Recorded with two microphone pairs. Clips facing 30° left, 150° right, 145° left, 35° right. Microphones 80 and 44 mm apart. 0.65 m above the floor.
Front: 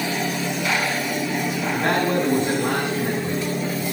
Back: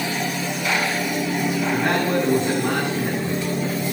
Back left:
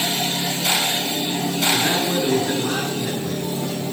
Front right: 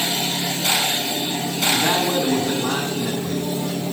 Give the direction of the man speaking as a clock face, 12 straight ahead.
1 o'clock.